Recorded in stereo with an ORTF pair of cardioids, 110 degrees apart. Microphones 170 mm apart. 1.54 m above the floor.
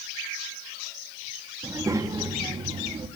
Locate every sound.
1.6 s a child speaking: 20° right, 2.5 m; by 3.1 s 35° right, 2.5 m